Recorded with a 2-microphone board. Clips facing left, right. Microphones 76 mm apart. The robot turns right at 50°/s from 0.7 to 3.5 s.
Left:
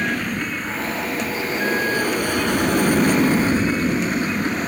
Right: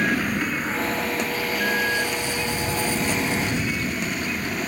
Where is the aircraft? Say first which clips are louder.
Right 1 dB; 5° right; by 4.7 s 135° left.